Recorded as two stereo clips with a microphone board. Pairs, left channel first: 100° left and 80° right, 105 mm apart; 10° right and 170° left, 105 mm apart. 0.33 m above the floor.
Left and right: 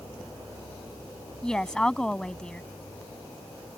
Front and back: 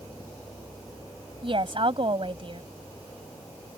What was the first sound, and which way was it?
A woman speaking, 175° right.